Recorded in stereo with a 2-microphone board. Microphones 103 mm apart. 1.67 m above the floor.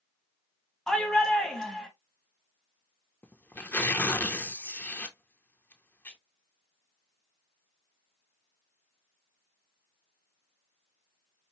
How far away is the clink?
No clink in this recording.